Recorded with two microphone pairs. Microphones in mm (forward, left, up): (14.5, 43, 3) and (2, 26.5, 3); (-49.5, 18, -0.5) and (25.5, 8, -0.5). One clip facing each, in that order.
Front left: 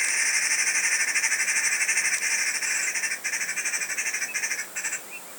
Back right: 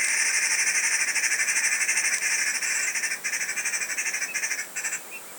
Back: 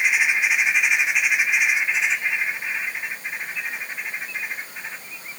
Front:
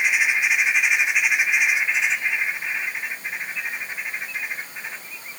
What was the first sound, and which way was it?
Only background noise.